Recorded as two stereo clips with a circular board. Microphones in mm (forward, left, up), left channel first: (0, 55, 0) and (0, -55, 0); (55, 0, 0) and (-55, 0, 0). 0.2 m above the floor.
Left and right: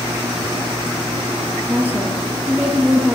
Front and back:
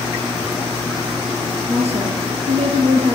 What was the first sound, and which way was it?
A woman speaking, 160° right.